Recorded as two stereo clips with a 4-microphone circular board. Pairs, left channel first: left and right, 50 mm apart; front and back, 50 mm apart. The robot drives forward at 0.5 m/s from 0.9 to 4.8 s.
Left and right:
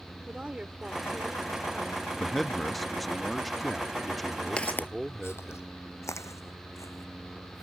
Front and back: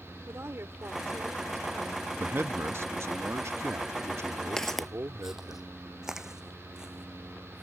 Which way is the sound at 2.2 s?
175° left.